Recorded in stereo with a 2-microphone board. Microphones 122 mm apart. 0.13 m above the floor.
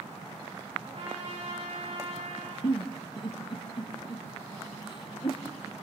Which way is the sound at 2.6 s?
40° left (ahead or behind).